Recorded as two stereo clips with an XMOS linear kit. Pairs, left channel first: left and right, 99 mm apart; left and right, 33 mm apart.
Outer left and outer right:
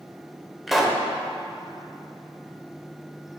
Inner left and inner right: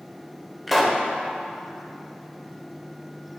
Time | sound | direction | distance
0.7 | a pop | centre (ahead or behind) | 0.7 m